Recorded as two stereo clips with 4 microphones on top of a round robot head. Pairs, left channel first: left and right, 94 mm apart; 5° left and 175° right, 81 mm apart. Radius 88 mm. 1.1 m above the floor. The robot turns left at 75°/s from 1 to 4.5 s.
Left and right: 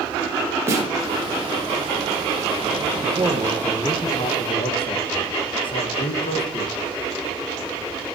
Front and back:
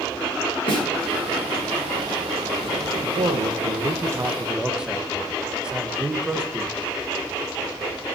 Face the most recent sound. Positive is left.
turn(degrees=105)